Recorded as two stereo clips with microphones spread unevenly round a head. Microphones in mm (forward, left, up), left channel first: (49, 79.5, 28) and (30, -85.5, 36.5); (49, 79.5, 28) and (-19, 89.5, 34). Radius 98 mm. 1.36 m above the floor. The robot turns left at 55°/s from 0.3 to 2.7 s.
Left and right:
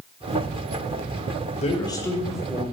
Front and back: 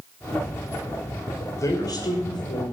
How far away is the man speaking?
About 5 m.